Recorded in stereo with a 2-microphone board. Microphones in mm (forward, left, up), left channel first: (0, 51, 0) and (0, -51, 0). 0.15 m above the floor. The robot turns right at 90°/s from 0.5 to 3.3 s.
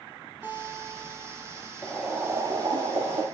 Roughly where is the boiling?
Behind.